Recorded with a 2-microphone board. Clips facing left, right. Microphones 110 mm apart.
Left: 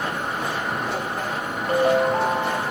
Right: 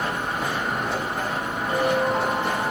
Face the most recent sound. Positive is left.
turn(degrees=70)  # may be behind; listen again after turning